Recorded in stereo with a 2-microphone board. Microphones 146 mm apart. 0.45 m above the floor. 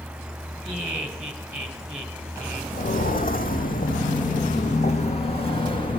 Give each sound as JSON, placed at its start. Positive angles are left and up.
{"t": 0.6, "sound": "laughter", "side_deg": -15, "distance_m": 3.0}
{"t": 2.7, "sound": "footsteps", "side_deg": 65, "distance_m": 1.6}